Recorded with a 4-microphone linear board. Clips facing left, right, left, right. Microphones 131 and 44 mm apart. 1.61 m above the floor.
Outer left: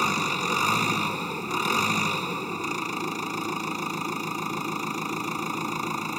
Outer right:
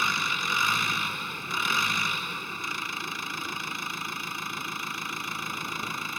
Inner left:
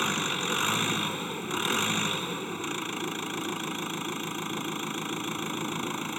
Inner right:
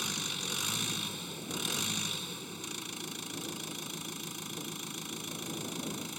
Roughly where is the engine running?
Left.